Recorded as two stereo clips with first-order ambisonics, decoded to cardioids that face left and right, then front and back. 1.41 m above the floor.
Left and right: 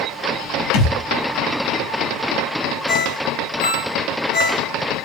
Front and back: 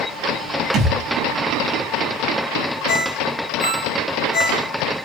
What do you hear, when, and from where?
0.7 s a thud: 115° left, 5 m
2.9 s a ringtone: 50° left, 5 m